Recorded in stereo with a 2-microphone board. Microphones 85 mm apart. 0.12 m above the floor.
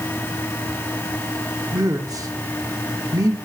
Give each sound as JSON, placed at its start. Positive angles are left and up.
{"t": 1.7, "sound": "a man speaking", "side_deg": -45, "distance_m": 2.0}